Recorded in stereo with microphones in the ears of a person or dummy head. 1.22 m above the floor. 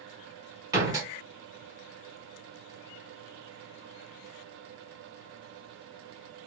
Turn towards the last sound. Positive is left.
turn(degrees=-20)  # may be behind; listen again after turning